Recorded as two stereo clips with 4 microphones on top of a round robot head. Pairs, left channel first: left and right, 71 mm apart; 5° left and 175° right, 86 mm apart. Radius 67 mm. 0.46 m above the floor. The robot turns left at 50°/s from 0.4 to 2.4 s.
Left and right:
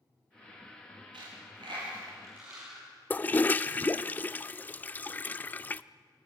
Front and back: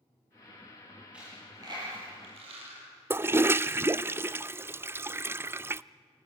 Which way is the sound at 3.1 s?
140° left.